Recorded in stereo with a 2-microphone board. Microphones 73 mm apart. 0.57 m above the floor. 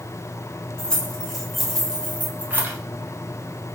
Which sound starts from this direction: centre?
Keys jangling, at 0.8 s.